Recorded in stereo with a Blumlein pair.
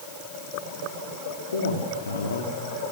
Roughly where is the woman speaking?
Left.